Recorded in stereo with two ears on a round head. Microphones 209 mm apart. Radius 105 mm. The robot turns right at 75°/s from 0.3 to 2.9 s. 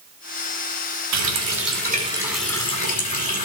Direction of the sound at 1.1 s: 95° right.